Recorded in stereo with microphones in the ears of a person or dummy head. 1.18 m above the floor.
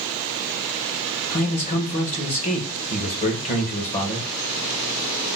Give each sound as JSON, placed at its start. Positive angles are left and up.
{"t": 1.3, "sound": "a man speaking", "side_deg": 35, "distance_m": 0.9}